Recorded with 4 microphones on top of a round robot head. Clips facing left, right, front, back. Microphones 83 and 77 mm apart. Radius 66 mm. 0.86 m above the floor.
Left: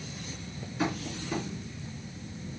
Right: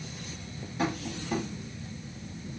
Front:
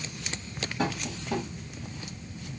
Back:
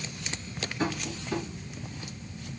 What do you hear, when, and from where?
0.8 s tapping: 45° right, 1.2 m